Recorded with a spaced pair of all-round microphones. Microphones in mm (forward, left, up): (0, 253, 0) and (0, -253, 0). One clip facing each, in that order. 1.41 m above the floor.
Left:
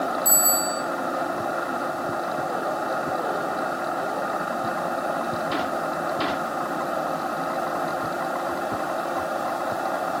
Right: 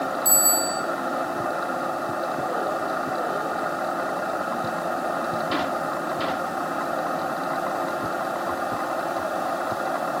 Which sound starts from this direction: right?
A bicycle bell, at 0.2 s.